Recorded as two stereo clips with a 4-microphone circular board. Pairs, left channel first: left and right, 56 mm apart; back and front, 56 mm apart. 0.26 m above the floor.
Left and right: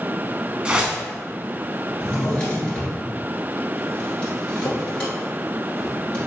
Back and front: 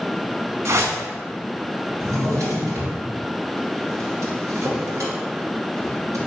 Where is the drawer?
15° left, 1.8 m.